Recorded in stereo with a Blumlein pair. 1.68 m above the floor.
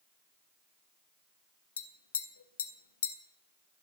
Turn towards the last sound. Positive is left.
turn(degrees=65)